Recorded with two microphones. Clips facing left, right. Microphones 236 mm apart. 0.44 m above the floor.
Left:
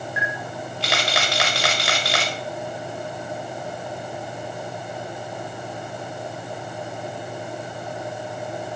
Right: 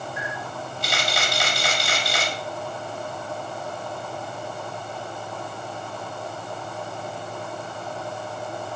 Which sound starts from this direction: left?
A camera shutter, at 0.2 s.